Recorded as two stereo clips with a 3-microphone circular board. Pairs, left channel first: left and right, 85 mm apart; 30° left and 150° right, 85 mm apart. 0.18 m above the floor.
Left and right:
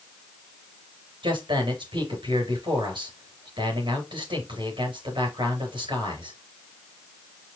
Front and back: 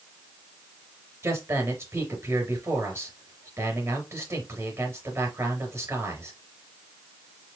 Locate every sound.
1.2 s a man speaking: 95° right, 3.5 m